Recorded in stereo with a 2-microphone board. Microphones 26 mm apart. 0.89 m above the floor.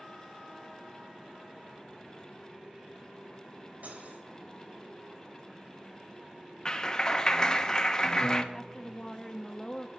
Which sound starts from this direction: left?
A clap, at 6.7 s.